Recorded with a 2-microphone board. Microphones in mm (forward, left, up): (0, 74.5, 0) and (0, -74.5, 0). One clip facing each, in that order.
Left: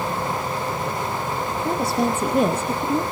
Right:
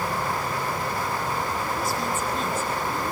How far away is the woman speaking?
About 3.5 m.